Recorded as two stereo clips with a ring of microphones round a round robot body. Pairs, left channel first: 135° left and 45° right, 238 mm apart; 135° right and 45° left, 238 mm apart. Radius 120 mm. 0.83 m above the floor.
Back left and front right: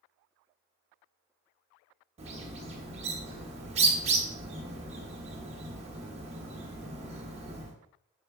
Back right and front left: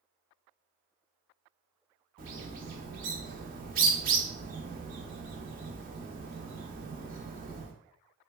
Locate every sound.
2.2 s a bird: 10° left, 0.9 m